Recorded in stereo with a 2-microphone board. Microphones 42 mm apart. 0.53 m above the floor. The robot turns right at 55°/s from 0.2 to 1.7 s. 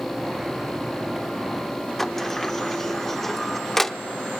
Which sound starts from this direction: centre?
A sliding door, at 2.0 s.